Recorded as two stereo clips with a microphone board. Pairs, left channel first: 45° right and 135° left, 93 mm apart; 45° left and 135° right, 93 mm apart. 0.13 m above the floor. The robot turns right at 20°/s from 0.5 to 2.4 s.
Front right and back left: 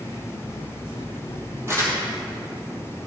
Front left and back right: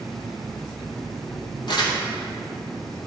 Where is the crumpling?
75° left, 2.5 m; by 2.0 s 80° left, 2.5 m.